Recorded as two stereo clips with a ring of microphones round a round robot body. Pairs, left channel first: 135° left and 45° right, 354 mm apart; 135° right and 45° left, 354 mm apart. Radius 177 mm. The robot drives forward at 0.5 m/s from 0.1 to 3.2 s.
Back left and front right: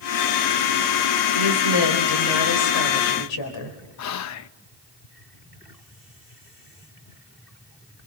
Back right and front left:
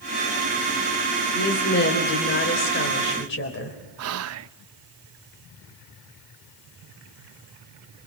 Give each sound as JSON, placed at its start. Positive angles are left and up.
{"t": 1.3, "sound": "a woman speaking", "azimuth_deg": 160, "distance_m": 3.0}
{"t": 4.0, "sound": "whispering", "azimuth_deg": 90, "distance_m": 0.7}